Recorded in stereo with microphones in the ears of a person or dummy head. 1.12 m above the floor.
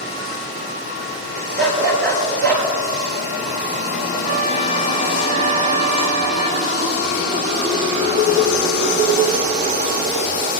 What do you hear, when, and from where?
1.6 s a dog barking: 65° right (ahead or behind), 8 m; by 2.7 s 60° right (ahead or behind), 8 m
4.2 s a trumpet: 80° right, 5 m